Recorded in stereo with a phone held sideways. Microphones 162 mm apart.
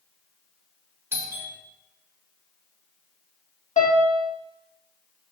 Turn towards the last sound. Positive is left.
turn(degrees=45)  # may be behind; listen again after turning